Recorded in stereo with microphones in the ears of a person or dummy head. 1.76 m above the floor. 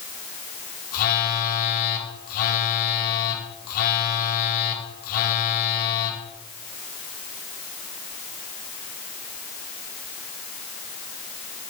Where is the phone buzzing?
50° left (ahead or behind), 1.9 m.